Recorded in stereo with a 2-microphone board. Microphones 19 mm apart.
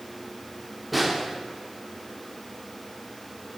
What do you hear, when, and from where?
0.9 s a snare drum: 5° right (ahead or behind), 1.1 m